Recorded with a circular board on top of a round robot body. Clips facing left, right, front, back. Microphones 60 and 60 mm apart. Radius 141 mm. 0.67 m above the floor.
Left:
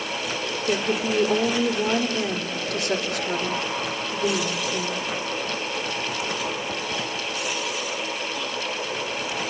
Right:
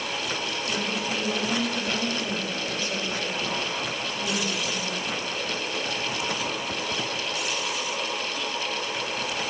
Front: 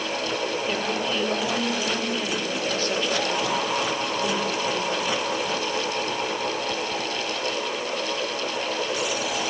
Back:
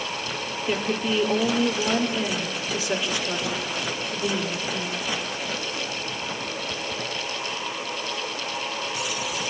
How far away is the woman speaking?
About 3 m.